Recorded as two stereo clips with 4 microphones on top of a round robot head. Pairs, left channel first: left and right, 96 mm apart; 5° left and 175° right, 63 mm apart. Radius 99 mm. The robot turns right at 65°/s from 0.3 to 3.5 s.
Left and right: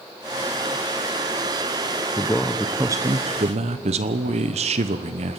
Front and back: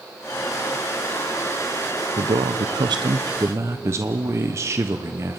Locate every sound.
2.2 s a man speaking: 155° left, 0.9 m; by 5.4 s 120° right, 0.9 m